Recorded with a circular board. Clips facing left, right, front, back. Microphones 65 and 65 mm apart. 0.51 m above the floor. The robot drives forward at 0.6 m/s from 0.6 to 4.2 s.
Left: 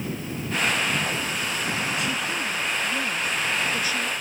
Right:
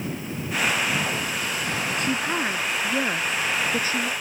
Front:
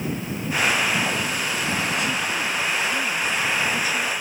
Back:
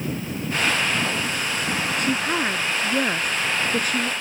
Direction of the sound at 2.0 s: 140° right.